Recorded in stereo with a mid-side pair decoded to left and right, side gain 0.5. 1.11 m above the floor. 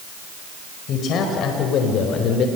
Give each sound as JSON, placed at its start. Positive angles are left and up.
{"t": 0.9, "sound": "a man speaking", "azimuth_deg": 65, "distance_m": 4.5}